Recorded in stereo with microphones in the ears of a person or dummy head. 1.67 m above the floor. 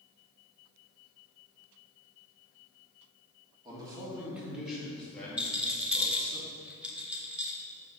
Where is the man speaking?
15° right (ahead or behind), 2.0 m; by 6.4 s 25° left (ahead or behind), 3 m.